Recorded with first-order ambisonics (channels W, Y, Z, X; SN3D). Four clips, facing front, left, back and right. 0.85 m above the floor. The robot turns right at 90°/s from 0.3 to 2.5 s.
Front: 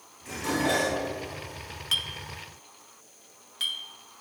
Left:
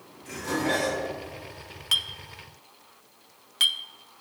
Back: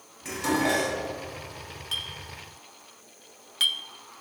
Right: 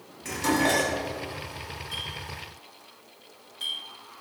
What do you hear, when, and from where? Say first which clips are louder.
0.2 s dishes clattering: right 4 dB, back 2 dB; 130° right, 4 m; by 1.0 s 65° right, 4 m
1.9 s a clink: left 10 dB, front 4 dB; 65° left, 0.7 m; by 3.8 s 120° left, 0.7 m